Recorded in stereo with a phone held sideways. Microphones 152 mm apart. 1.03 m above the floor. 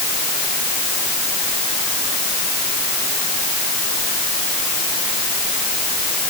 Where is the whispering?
I don't hear whispering.